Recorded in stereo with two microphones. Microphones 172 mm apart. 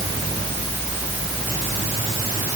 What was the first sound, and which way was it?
Only background noise.